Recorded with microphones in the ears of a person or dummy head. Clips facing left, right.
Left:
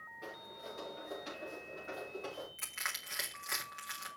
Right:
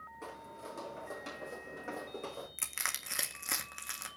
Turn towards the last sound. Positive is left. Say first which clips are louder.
# right 2 dB
turn(degrees=-50)  # may be behind; listen again after turning